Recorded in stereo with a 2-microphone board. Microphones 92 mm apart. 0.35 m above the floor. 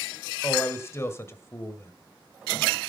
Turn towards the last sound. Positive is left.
turn(degrees=30)  # may be behind; listen again after turning